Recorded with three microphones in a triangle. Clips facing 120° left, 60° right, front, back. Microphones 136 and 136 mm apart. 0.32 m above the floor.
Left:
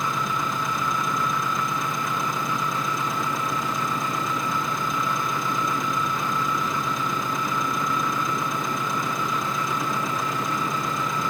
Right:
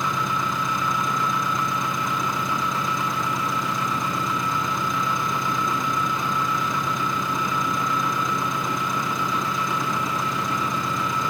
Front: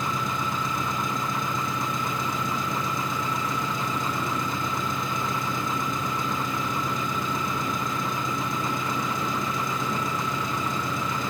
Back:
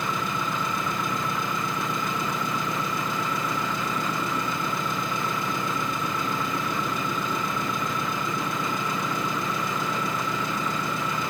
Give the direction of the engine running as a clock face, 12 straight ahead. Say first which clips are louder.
Right 1 dB, even; 5 o'clock.